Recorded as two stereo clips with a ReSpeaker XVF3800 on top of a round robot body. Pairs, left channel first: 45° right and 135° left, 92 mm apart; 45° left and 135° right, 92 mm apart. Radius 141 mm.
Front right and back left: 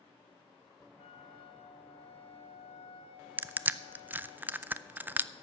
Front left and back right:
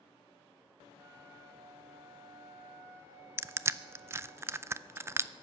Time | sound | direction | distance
1.0 | a flute | 70° right | 0.5 m
3.4 | crushing | 170° right | 0.6 m